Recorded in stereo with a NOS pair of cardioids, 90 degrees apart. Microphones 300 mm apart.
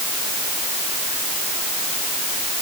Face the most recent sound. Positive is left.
No sound to turn to.